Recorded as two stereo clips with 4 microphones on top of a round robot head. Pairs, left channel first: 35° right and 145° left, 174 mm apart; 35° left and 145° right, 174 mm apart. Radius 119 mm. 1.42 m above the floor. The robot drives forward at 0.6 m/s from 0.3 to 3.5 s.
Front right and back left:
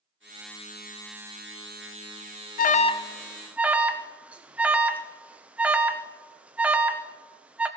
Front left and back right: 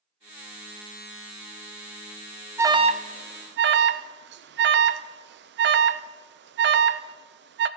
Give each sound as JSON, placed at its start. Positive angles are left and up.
{"t": 2.6, "sound": "an alarm", "azimuth_deg": -70, "distance_m": 0.5}